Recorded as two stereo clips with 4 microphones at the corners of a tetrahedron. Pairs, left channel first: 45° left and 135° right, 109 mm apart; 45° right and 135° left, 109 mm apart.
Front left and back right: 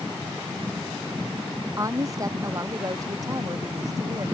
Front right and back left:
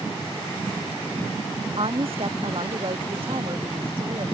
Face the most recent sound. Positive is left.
turn(degrees=170)